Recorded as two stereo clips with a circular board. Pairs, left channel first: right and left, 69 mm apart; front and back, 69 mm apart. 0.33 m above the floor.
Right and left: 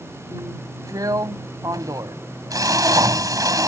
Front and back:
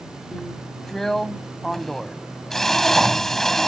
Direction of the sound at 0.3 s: 85° left.